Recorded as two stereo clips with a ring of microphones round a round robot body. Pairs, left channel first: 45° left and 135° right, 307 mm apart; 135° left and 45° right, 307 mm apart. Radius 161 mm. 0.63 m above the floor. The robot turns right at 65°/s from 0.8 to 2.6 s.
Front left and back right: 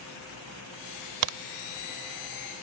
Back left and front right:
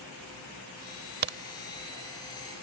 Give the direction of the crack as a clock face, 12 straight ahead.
4 o'clock.